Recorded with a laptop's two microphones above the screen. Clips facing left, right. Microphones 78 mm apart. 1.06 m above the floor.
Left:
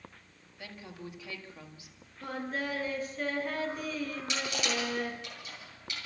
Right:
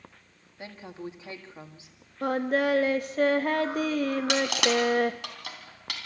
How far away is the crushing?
About 3.5 m.